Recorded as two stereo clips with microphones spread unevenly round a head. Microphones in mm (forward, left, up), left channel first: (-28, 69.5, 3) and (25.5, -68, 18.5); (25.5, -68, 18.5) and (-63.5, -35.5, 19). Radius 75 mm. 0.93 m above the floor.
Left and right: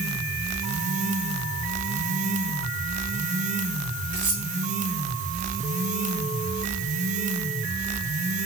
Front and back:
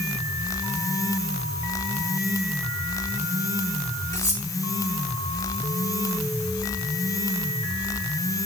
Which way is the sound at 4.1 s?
75° right.